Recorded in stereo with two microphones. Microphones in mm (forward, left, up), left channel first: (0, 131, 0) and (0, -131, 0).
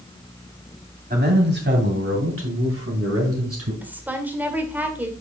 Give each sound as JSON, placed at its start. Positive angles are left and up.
{"t": 1.1, "sound": "a man speaking", "side_deg": -35, "distance_m": 2.5}
{"t": 3.8, "sound": "a woman speaking", "side_deg": -5, "distance_m": 1.6}